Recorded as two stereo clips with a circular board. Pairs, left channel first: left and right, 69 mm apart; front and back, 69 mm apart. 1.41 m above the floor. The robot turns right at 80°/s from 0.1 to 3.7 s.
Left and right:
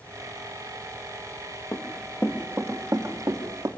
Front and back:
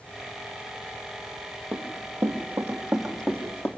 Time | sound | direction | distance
1.7 | running footsteps | 160° left | 2 m